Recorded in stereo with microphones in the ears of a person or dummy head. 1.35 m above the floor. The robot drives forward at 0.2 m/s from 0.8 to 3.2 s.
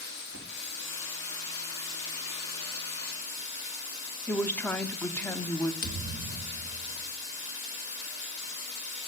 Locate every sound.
0.0 s running water: 75° left (ahead or behind), 2.5 m; by 9.1 s 65° left (ahead or behind), 3 m
4.3 s a woman speaking: 10° left (ahead or behind), 0.5 m
5.8 s a thud: 50° left (ahead or behind), 1.2 m